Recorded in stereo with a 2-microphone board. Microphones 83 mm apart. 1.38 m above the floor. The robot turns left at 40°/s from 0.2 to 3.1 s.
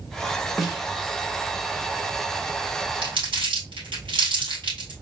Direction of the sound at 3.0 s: 80° right.